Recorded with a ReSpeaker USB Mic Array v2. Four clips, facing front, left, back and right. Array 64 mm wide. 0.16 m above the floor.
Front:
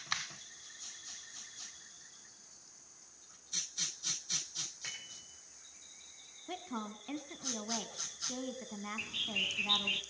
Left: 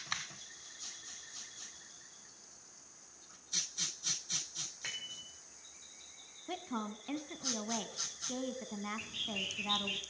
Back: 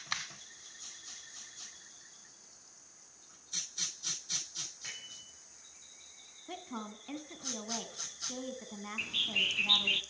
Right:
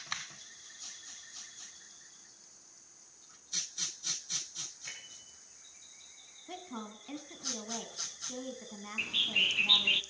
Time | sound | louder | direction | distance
4.8 | a bicycle bell | left 6 dB, even | 80° left | 5.5 m
6.5 | a woman speaking | left 4 dB, front 1 dB | 70° left | 1.1 m
9.0 | a bird | right 8 dB, back 8 dB | 110° right | 0.6 m